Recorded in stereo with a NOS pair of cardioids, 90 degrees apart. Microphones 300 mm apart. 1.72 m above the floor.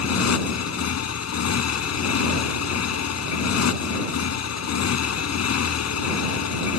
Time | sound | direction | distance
0.0 | a motorcycle | 60° left | ?